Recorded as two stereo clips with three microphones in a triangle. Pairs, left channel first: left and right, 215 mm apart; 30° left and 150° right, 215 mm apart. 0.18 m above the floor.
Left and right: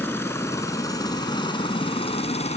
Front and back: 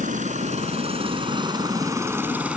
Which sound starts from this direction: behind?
A helicopter, at 0.0 s.